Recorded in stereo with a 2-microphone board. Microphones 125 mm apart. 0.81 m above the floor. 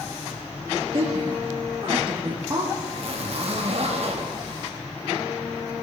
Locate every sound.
0.9 s a woman speaking: 50° right (ahead or behind), 1.2 m; by 2.7 s 25° right (ahead or behind), 1.4 m
2.8 s a zipper: 55° right (ahead or behind), 1.1 m